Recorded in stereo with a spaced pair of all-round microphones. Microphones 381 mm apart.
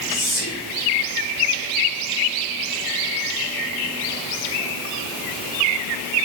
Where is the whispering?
25° left (ahead or behind), 1.6 m.